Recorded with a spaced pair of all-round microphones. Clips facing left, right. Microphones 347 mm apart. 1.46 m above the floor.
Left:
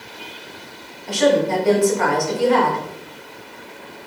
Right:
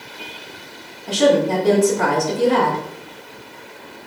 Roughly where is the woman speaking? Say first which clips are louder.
Right 1 dB; right.